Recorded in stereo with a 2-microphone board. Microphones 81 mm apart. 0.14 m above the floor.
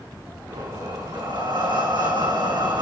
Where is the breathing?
65° right (ahead or behind), 5.5 m.